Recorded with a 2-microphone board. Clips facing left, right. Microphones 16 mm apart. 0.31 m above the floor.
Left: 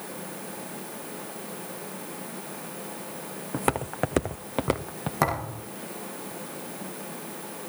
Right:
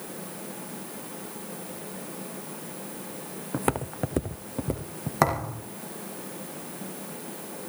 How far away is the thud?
About 4 m.